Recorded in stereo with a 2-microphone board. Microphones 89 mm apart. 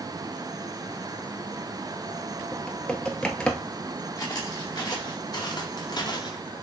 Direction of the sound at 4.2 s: 45° left (ahead or behind).